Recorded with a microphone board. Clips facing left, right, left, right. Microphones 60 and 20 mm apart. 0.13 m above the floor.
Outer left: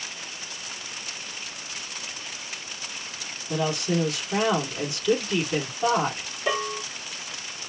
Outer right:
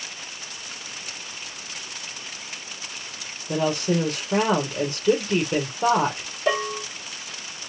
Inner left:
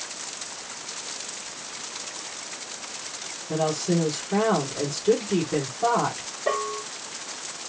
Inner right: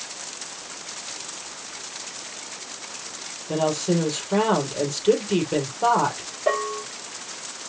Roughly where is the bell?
Centre.